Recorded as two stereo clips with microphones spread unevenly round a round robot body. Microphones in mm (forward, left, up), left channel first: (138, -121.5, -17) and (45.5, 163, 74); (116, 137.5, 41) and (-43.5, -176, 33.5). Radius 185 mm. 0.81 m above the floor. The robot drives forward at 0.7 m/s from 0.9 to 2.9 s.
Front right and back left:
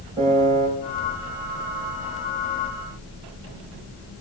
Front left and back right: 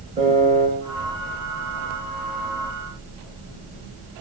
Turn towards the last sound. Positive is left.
turn(degrees=175)